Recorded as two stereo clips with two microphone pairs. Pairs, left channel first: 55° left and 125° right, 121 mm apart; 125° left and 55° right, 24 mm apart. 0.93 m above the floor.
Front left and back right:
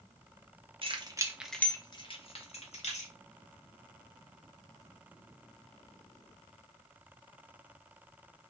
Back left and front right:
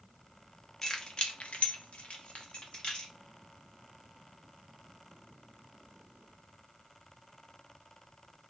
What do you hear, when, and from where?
0.8 s keys jangling: 170° right, 0.7 m; by 3.1 s 75° left, 1.3 m